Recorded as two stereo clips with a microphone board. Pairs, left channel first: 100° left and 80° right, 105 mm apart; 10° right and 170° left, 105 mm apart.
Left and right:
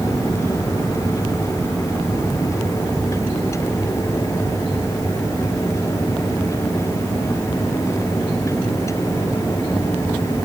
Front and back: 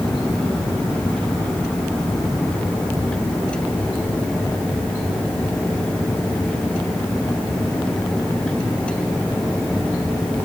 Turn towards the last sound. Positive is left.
No sound to turn to.